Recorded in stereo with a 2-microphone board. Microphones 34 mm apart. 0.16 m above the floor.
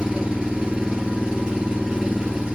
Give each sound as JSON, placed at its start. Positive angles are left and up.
{"t": 0.0, "sound": "an engine running", "side_deg": -25, "distance_m": 1.3}